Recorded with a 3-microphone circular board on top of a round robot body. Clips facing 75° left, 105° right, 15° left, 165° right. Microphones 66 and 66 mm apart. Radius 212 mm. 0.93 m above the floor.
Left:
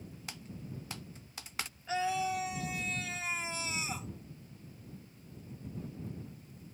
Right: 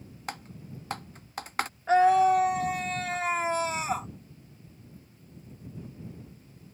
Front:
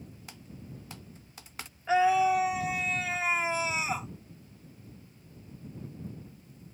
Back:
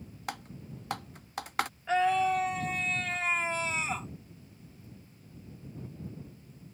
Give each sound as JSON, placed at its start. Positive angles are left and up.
{"t": 0.3, "sound": "typing on a keyboard", "azimuth_deg": -145}
{"t": 1.9, "sound": "a scream", "azimuth_deg": -65}